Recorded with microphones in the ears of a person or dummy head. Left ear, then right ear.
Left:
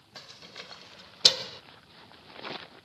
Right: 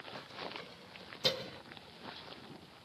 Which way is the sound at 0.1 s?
35° left (ahead or behind).